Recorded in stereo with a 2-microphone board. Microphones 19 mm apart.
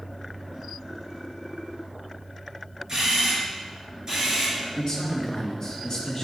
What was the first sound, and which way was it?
A camera shutter, 30° right (ahead or behind).